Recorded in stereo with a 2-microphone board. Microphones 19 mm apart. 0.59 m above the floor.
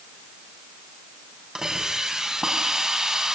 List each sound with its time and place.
1.6 s a hiss: 35° right (ahead or behind), 5 m